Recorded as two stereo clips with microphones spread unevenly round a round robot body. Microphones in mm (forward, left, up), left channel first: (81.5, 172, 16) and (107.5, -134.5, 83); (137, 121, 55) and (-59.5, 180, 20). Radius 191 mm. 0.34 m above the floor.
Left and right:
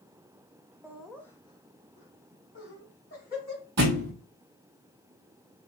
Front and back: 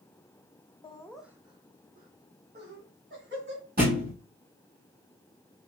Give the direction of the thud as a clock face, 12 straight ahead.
4 o'clock.